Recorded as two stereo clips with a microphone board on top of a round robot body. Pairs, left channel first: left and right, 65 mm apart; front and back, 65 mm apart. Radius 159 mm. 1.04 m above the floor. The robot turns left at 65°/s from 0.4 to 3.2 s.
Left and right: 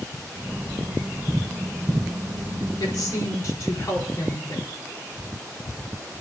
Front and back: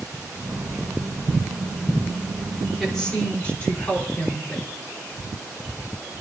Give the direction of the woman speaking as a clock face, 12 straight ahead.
9 o'clock.